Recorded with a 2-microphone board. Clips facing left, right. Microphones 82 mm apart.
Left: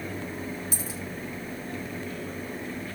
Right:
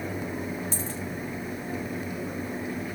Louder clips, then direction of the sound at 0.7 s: Right 2 dB; 10° left (ahead or behind).